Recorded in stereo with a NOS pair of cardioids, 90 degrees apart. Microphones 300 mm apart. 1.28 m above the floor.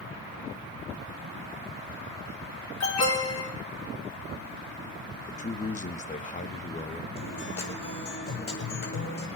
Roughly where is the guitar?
Ahead left.